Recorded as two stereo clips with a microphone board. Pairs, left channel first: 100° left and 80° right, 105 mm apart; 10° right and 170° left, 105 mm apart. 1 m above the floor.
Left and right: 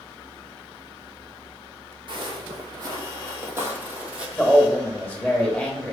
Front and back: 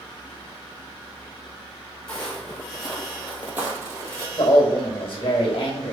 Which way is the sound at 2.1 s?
85° right.